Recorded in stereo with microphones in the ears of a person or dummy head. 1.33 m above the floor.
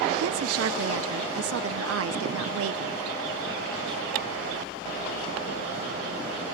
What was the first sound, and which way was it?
A woman speaking, 75° right (ahead or behind).